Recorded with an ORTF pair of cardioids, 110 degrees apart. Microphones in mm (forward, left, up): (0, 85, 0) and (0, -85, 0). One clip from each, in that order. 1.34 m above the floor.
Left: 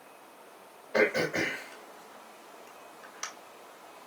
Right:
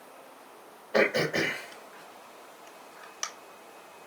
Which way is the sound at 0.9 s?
20° right.